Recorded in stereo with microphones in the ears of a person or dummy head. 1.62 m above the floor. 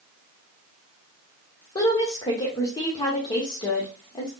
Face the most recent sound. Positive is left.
turn(degrees=25)  # may be behind; listen again after turning